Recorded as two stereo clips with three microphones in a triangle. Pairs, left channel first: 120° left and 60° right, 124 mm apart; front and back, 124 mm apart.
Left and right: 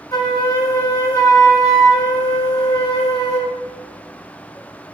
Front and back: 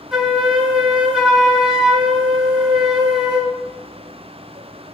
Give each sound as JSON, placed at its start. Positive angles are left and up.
{"t": 0.1, "sound": "a flute", "azimuth_deg": 100, "distance_m": 1.5}